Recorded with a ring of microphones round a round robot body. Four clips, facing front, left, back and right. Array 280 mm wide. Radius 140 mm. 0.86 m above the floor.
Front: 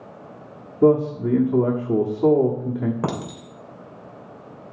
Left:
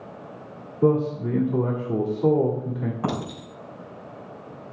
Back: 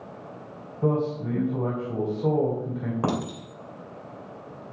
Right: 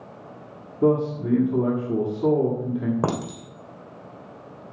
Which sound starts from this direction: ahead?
A man speaking, at 0.8 s.